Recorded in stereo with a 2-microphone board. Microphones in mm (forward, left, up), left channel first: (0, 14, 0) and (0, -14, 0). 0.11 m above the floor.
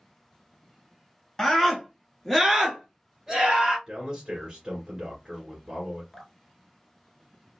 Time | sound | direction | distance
1.4 | a scream | 20° left (ahead or behind) | 1.1 m
3.9 | a man speaking | 20° right (ahead or behind) | 1.8 m
6.1 | dripping | 20° left (ahead or behind) | 0.7 m